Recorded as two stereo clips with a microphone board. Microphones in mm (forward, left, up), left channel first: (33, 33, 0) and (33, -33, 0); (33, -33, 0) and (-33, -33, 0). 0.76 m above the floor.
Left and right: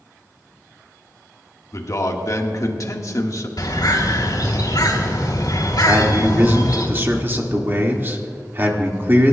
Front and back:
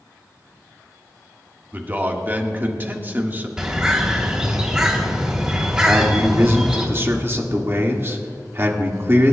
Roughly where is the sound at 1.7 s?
Behind left.